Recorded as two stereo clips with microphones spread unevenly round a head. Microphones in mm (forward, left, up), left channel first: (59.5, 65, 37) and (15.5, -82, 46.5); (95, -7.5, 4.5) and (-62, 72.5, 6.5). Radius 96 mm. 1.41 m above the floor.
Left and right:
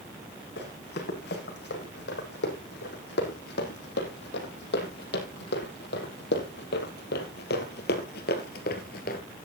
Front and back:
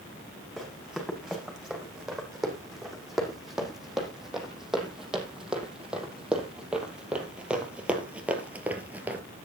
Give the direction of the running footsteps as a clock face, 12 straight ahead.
10 o'clock.